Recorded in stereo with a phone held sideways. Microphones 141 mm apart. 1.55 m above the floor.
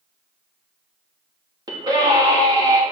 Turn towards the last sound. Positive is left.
turn(degrees=-30)  # may be behind; listen again after turning